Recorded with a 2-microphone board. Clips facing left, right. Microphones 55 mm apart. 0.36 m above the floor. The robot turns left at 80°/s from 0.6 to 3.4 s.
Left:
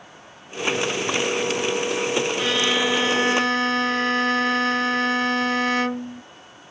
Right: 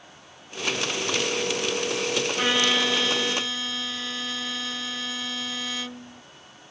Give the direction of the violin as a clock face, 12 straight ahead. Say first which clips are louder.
Left 1 dB; 5 o'clock.